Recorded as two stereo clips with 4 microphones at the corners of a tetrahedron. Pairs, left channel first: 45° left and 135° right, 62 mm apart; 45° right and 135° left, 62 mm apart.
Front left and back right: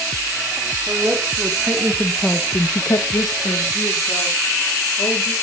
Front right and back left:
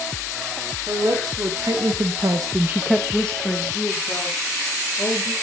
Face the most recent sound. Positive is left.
turn(degrees=10)